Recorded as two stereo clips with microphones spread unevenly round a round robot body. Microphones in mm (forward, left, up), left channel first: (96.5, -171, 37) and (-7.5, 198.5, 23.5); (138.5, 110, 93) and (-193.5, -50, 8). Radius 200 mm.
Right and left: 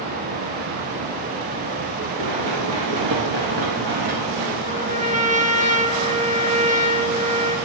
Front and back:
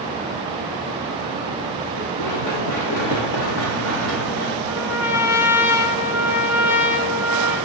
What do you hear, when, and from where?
2.2 s running footsteps: 65° left, 4 m; by 4.6 s 75° left, 3 m
4.7 s a trumpet: 35° left, 2 m